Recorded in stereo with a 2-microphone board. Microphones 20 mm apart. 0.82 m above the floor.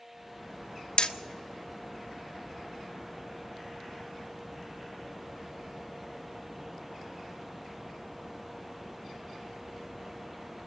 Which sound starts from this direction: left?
Hammering, at 1.0 s.